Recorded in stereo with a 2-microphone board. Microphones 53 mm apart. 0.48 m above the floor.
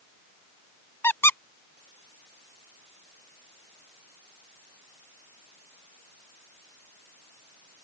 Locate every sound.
1.0 s a squeak: 55° left (ahead or behind)